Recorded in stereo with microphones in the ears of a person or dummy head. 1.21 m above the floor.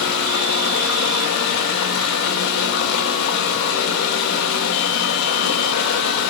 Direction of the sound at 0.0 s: 75° left (ahead or behind).